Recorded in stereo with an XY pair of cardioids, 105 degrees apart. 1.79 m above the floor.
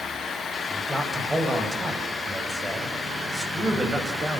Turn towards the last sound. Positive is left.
turn(degrees=-20)